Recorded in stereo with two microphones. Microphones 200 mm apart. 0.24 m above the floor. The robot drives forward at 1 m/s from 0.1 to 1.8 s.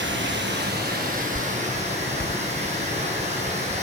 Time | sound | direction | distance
0.0 | running water | 85° right | 1.3 m